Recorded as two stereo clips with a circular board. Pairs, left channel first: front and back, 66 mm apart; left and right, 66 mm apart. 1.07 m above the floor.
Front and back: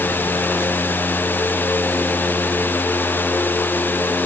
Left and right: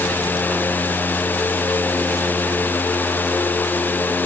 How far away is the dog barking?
No dog barking in this recording.